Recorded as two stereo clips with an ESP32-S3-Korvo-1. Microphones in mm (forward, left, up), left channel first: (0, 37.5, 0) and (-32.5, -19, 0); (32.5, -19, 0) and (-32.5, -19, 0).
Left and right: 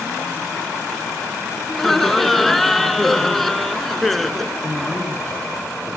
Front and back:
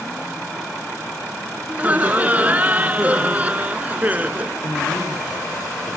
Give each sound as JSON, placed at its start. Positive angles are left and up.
{"t": 1.7, "sound": "laughter", "azimuth_deg": 145, "distance_m": 1.2}
{"t": 4.6, "sound": "a man speaking", "azimuth_deg": -10, "distance_m": 7.5}